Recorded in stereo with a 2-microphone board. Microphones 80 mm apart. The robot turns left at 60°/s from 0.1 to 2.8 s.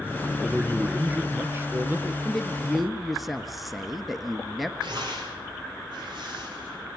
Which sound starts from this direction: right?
Tearing paper, at 4.8 s.